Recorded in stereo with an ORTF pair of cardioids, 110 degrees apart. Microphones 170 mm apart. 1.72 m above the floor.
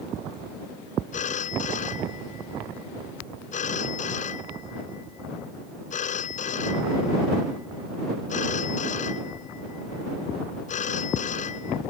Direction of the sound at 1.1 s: 45° left.